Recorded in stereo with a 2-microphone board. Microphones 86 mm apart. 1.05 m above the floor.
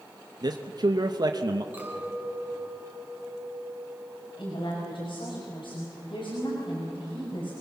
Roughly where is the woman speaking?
Left.